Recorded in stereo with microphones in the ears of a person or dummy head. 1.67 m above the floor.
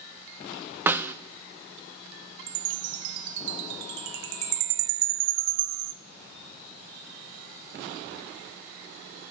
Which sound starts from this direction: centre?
A snare drum, at 0.9 s.